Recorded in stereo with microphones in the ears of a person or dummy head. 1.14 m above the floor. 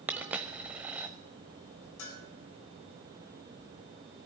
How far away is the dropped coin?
About 1.1 m.